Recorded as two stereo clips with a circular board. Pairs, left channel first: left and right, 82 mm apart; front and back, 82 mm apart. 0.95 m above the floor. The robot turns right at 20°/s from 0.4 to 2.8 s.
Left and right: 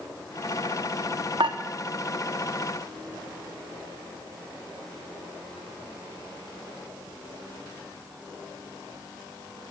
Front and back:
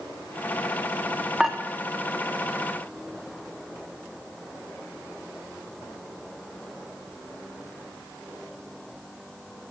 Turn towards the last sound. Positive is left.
turn(degrees=-70)